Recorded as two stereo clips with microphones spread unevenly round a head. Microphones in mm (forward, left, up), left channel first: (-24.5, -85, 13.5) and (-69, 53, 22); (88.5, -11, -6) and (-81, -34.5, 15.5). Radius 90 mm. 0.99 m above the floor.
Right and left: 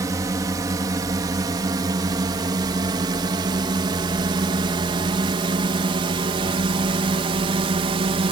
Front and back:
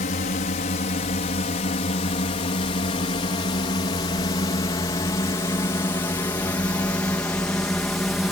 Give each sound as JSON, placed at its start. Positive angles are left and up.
{"t": 0.0, "sound": "a drone", "azimuth_deg": 40}